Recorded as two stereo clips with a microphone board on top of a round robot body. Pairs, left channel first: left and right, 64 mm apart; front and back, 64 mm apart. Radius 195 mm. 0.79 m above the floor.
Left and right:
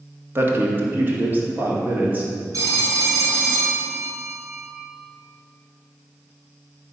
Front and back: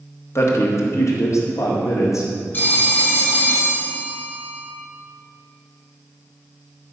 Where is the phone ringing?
60° right, 3.5 m.